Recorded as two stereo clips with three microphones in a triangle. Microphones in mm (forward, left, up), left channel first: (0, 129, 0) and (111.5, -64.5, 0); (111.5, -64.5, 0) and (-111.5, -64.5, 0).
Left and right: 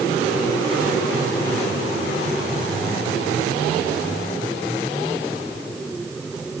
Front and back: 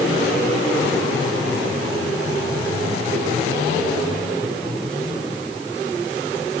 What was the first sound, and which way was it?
Only background noise.